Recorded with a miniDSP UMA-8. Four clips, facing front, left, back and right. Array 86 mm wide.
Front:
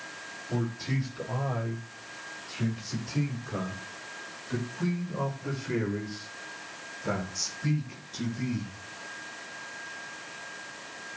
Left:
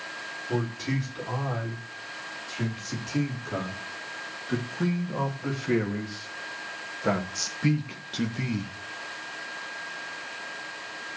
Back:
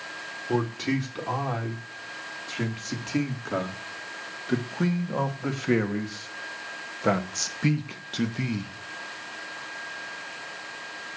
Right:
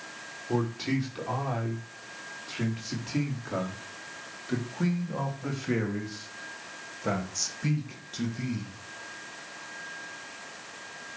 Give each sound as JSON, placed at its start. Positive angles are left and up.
{"t": 0.5, "sound": "a man speaking", "azimuth_deg": -165, "distance_m": 5.5}